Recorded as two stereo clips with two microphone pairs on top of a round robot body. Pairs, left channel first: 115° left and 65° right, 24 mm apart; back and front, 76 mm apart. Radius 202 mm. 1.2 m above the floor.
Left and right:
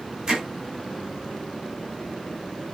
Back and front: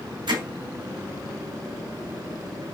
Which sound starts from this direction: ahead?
Hammering, at 0.3 s.